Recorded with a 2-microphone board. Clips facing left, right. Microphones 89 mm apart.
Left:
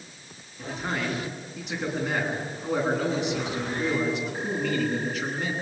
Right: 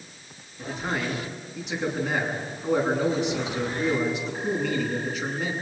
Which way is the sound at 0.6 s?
Centre (ahead or behind).